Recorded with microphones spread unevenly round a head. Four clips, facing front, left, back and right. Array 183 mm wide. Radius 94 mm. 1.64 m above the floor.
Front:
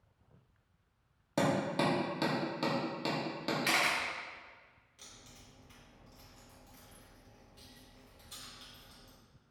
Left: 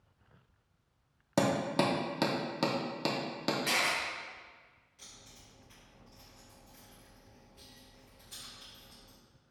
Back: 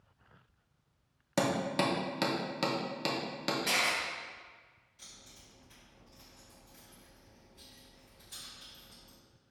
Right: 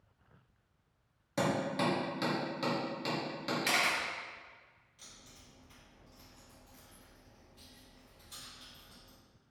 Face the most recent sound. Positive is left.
turn(degrees=15)